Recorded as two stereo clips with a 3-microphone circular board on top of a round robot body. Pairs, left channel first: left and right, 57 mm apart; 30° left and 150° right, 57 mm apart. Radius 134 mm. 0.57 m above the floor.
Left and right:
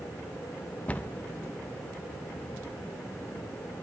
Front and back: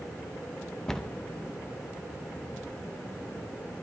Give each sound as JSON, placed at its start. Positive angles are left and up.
{"t": 0.9, "sound": "a cupboard door", "azimuth_deg": 100, "distance_m": 0.7}